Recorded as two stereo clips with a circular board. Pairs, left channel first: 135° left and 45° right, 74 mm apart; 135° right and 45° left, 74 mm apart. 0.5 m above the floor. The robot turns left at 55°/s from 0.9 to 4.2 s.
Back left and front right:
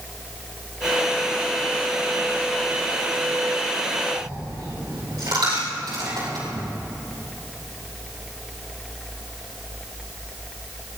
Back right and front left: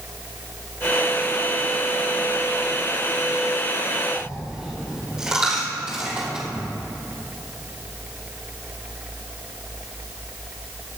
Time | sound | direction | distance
4.2 | a dropped coin | 30° right | 6 m